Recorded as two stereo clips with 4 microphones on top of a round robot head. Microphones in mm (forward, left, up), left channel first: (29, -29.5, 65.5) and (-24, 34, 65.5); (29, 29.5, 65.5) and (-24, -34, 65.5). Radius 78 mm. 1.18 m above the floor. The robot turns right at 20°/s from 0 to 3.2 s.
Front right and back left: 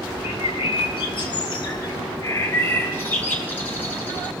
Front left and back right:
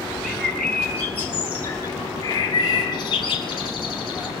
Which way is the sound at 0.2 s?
40° right.